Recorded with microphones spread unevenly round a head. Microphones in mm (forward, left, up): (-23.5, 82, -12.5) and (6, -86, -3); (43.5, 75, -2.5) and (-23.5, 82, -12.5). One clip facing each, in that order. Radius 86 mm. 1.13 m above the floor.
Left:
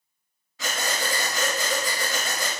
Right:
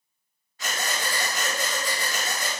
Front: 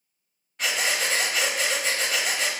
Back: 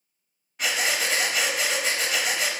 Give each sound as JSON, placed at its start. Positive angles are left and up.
{"t": 0.6, "sound": "breathing", "azimuth_deg": 85, "distance_m": 0.8}